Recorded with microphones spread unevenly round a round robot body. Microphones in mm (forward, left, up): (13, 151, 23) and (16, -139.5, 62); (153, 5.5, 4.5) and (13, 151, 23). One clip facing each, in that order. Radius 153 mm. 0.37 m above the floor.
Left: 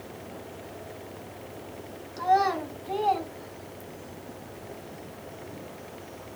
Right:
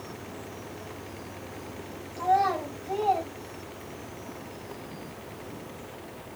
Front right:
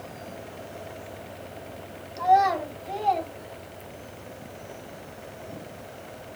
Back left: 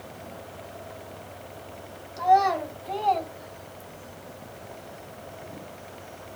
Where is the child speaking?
40° left, 2.5 m; by 4.2 s 35° left, 3.5 m.